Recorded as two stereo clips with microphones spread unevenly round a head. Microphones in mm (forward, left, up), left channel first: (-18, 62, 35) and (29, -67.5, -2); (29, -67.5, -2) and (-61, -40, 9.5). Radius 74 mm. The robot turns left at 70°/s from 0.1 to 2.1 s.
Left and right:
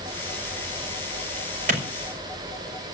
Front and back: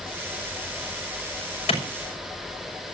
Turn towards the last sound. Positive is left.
turn(degrees=-60)